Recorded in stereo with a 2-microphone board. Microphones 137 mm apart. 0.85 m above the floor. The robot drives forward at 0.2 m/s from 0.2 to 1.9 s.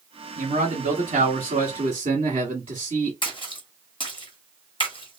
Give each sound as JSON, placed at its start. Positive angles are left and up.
{"t": 0.4, "sound": "a man speaking", "side_deg": -65, "distance_m": 1.2}
{"t": 3.2, "sound": "a splash", "side_deg": 40, "distance_m": 0.9}